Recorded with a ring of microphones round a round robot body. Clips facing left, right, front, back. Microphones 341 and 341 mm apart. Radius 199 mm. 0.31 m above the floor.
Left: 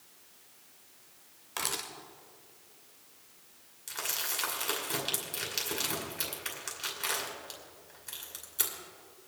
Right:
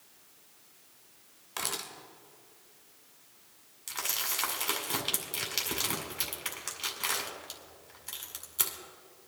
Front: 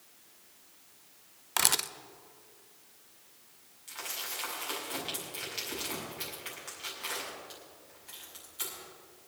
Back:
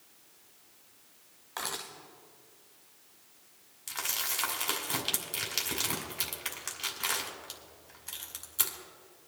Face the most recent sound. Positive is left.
turn(degrees=-160)